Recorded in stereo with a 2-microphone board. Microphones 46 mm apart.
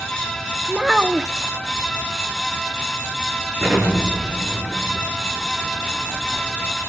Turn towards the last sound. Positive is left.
turn(degrees=-30)  # may be behind; listen again after turning